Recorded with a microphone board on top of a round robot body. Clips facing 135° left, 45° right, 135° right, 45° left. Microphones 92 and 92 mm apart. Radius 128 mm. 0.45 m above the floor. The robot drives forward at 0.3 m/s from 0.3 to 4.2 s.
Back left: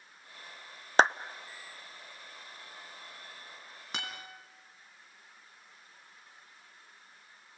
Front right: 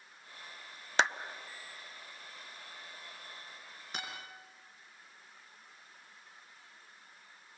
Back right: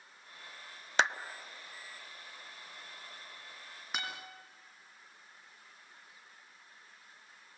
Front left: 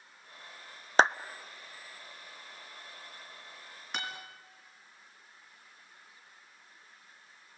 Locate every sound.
1.0 s a clap: 90° left, 0.8 m; by 1.2 s 95° left, 0.8 m
3.9 s a guitar: 140° left, 5 m